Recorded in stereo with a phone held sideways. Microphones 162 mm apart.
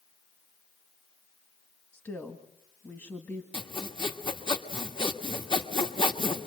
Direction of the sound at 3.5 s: 30° left (ahead or behind).